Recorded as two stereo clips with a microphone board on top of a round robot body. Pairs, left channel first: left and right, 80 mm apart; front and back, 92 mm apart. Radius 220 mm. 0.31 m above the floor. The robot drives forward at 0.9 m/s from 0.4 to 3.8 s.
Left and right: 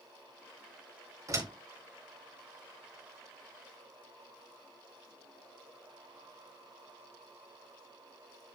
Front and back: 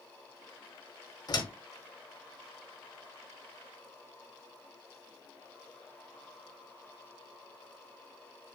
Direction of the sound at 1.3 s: 45° right.